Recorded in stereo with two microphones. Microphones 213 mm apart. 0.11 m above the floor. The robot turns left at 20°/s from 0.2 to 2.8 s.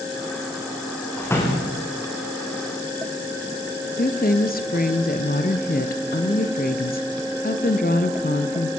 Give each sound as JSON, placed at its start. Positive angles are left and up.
{"t": 1.2, "sound": "a door slam", "side_deg": 10, "distance_m": 5.0}
{"t": 4.0, "sound": "a woman speaking", "side_deg": 45, "distance_m": 1.6}